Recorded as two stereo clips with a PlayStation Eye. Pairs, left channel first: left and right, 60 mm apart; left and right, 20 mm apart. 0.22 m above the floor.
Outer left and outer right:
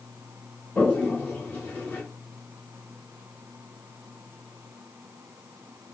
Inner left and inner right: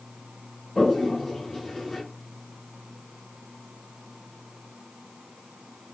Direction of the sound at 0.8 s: 25° left (ahead or behind).